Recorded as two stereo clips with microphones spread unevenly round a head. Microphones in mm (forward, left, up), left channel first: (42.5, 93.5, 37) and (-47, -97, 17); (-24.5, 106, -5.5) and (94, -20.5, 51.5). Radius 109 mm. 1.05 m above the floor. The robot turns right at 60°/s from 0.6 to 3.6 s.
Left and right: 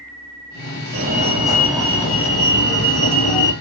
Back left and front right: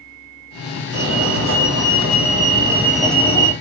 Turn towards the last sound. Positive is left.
turn(degrees=85)